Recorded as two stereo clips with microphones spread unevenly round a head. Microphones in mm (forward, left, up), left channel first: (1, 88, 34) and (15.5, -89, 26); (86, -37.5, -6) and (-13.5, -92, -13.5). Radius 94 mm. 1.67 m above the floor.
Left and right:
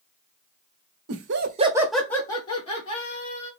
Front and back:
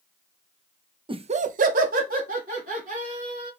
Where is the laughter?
100° right, 0.8 m; by 3.5 s 150° left, 2.5 m.